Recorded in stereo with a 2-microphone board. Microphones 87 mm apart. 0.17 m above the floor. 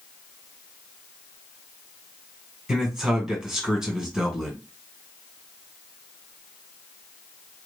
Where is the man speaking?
10° right (ahead or behind), 1.5 m.